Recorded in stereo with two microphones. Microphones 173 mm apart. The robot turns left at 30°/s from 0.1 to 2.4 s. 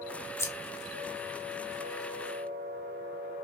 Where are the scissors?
15° left (ahead or behind), 0.7 m; by 0.5 s 20° left (ahead or behind), 0.7 m.